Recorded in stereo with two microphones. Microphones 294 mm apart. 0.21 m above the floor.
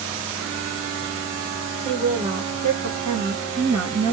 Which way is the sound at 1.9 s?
20° right (ahead or behind).